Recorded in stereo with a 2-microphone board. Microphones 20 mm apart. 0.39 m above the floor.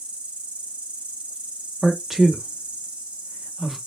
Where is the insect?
85° right, 1.9 m.